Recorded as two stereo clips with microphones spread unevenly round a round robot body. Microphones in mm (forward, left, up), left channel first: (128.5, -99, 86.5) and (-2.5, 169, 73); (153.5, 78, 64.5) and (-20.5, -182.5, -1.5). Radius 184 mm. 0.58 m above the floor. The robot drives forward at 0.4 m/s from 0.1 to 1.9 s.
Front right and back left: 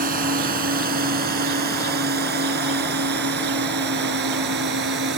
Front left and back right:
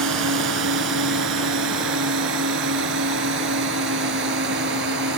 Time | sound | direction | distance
0.0 | a drone | straight behind | ?